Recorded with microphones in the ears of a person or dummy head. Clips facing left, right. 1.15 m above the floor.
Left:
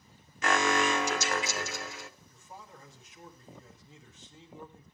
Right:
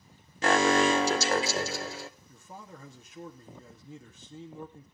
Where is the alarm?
25° right (ahead or behind), 0.7 m.